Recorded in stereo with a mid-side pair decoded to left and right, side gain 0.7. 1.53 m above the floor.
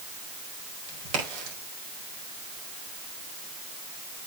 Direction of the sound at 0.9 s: 65° right.